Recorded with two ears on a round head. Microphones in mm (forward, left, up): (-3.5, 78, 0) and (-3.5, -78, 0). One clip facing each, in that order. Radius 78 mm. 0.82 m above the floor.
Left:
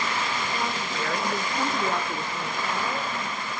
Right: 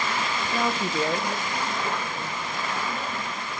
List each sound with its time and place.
0.5 s a woman speaking: 60° right (ahead or behind), 1.2 m; by 3.1 s 70° left (ahead or behind), 3 m